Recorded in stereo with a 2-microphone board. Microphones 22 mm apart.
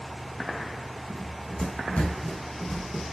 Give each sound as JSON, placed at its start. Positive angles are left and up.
{"t": 1.1, "sound": "running footsteps", "side_deg": 70, "distance_m": 3.5}